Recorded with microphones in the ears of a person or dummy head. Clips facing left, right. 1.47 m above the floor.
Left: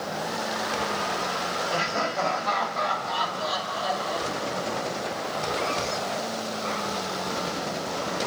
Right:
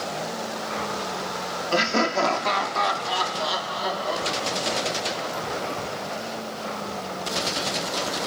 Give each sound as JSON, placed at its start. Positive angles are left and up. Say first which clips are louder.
{"t": 1.7, "sound": "laughter", "louder": "right 8 dB", "side_deg": -70, "distance_m": 2.5}